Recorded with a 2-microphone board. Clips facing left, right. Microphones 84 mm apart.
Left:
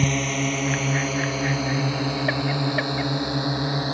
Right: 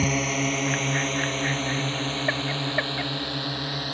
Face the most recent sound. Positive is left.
turn(degrees=20)  # may be behind; listen again after turning